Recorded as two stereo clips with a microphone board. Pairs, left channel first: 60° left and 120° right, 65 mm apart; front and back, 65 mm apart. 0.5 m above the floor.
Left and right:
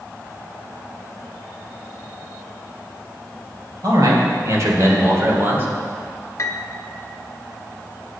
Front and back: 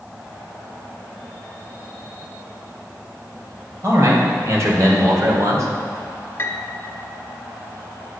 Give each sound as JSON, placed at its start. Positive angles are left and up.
{"t": 3.8, "sound": "a man speaking", "azimuth_deg": -140, "distance_m": 3.0}
{"t": 6.4, "sound": "a piano", "azimuth_deg": 40, "distance_m": 0.8}